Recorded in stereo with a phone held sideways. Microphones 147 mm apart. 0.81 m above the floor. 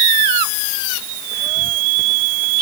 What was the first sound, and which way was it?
Only background noise.